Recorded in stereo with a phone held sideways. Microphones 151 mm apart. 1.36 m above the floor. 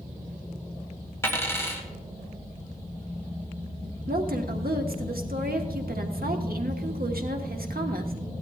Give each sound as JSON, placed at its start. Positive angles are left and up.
{"t": 1.2, "sound": "a dropped coin", "side_deg": 15, "distance_m": 2.0}
{"t": 4.1, "sound": "a woman speaking", "side_deg": -80, "distance_m": 1.3}